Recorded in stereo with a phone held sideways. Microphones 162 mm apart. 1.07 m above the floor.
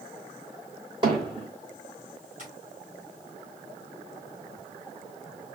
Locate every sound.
1.0 s hammering: 30° right (ahead or behind), 2 m
2.4 s tapping: 55° right (ahead or behind), 3.5 m